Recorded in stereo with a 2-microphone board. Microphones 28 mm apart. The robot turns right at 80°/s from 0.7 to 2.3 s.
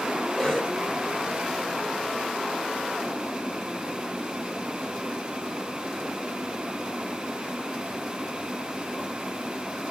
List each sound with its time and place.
0.4 s a cough: 15° left (ahead or behind), 6.5 m; by 0.8 s 10° left (ahead or behind), 6.5 m